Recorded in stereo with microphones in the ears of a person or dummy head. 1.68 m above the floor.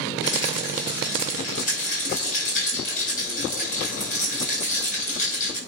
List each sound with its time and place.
0.2 s a rattle: 50° left (ahead or behind), 6 m